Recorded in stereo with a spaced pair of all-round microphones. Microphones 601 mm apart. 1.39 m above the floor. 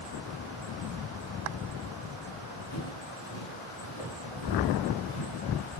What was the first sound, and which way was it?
Footsteps, 35° left (ahead or behind).